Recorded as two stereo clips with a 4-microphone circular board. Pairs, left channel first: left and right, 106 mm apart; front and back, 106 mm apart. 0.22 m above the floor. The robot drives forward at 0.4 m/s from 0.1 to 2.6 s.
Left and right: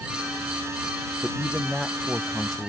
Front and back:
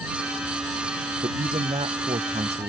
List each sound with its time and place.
1.2 s a man speaking: 175° left